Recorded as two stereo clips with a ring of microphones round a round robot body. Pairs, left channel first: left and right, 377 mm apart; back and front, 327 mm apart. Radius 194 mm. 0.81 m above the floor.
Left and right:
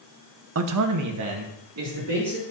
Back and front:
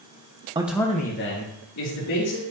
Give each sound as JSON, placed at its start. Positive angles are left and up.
{"t": 0.6, "sound": "a man speaking", "azimuth_deg": -65, "distance_m": 0.8}